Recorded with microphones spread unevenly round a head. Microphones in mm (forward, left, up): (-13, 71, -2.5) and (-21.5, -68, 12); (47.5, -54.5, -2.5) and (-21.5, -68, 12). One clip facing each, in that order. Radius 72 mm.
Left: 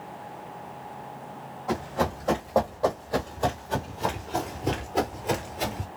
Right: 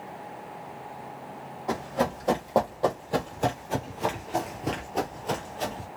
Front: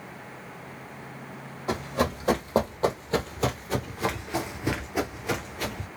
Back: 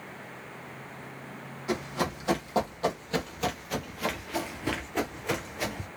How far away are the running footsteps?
About 1.9 m.